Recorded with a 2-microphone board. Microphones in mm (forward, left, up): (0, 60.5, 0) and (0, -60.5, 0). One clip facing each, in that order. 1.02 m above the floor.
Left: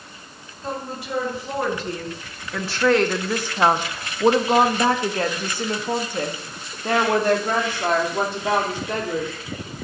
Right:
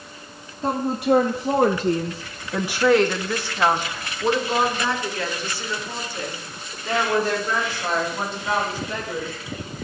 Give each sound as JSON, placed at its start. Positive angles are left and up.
{"t": 0.6, "sound": "a woman speaking", "side_deg": -55, "distance_m": 1.4}